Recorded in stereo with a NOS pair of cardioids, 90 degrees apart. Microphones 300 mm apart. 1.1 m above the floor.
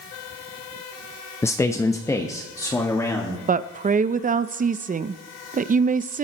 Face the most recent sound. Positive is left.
turn(degrees=-25)